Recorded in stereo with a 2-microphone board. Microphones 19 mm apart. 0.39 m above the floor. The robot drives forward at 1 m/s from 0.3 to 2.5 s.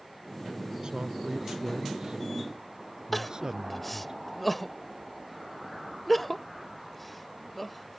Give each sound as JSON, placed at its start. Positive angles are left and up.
{"t": 0.8, "sound": "a man speaking", "side_deg": -55}
{"t": 3.1, "sound": "crying", "side_deg": 10}